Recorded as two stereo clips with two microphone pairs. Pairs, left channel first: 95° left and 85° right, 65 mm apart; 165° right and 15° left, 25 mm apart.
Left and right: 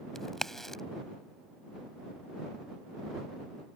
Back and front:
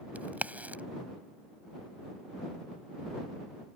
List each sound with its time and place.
0.1 s a crack: 15° left